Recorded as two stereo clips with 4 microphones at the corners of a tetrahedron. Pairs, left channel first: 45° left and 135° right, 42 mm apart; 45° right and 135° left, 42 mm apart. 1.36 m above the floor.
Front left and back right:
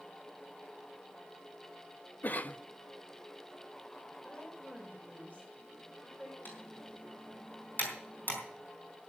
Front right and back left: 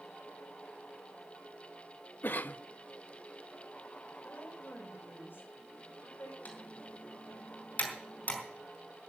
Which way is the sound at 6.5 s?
5° left.